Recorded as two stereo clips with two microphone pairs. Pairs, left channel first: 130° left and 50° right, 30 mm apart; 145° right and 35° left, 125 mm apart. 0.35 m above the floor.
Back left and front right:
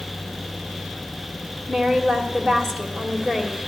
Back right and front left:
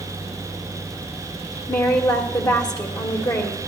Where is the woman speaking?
165° right, 1.1 m.